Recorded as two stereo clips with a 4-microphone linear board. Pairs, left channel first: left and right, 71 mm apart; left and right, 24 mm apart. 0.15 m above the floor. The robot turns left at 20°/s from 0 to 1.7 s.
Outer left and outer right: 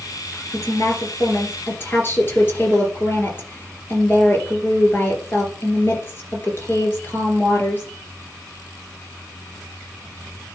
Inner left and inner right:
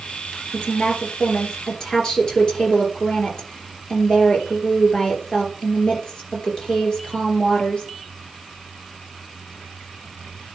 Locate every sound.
0.5 s a woman speaking: 50° left (ahead or behind), 3 m; by 7.9 s 30° left (ahead or behind), 3 m